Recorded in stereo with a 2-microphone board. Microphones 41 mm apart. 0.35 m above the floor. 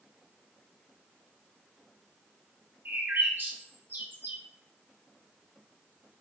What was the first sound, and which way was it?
A bird, 55° right (ahead or behind).